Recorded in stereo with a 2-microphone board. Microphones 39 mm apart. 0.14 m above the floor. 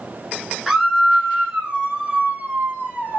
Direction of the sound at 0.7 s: 10° right (ahead or behind).